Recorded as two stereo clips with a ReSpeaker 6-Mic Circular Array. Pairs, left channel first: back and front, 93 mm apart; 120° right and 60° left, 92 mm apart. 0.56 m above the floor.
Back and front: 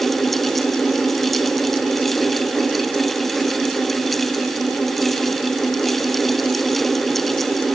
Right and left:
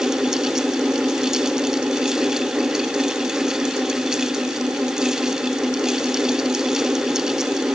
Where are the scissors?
I don't hear scissors.